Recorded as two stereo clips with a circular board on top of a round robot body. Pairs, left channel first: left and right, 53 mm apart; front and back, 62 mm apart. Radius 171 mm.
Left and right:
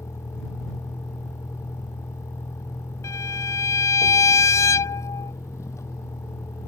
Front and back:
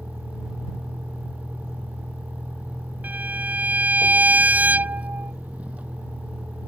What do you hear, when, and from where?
0.0 s a vehicle: 115° left
3.0 s a violin: 115° left